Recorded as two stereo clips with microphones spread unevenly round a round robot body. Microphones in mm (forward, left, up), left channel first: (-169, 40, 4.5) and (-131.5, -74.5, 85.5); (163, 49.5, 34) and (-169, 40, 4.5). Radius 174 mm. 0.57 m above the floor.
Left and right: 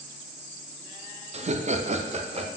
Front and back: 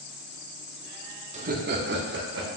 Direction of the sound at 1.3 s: 145° right.